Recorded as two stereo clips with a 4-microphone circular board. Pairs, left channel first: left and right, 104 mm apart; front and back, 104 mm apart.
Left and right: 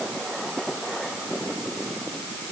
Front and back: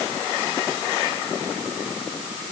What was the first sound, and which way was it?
Only background noise.